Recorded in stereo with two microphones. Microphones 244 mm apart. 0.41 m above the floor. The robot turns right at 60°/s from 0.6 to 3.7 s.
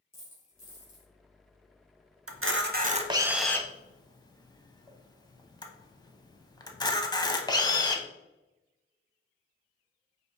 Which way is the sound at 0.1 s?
35° left (ahead or behind).